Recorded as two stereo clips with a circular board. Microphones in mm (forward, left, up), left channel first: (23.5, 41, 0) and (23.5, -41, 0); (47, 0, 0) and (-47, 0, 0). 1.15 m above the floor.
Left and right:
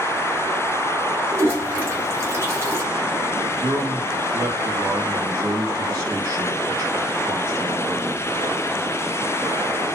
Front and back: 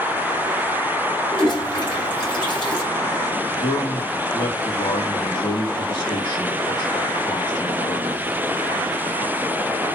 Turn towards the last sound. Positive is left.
turn(degrees=-40)